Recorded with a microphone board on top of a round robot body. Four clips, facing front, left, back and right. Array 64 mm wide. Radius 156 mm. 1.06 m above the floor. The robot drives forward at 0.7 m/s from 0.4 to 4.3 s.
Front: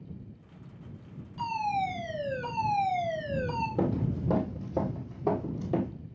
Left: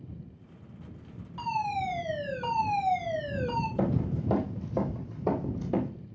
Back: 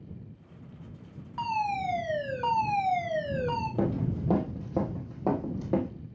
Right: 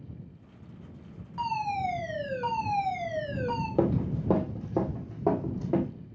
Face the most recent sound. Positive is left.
turn(degrees=-150)